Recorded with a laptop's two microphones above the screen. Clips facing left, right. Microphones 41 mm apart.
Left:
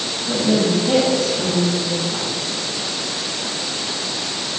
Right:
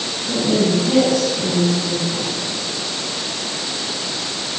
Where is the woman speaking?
25° left (ahead or behind), 5 m.